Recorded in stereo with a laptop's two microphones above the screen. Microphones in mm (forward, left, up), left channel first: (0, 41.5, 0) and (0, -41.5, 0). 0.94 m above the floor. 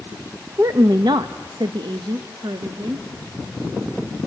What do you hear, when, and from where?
0.6 s a woman speaking: 35° right (ahead or behind), 0.6 m; by 3.1 s 55° right (ahead or behind), 1.7 m